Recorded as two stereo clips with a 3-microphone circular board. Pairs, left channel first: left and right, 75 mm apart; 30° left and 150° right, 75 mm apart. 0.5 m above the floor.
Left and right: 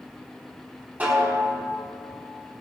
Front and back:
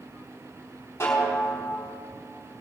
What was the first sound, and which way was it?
A snare drum, 25° right.